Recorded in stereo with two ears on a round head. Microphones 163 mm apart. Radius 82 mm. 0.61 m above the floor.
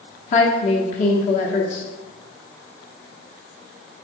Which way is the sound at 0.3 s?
40° left (ahead or behind).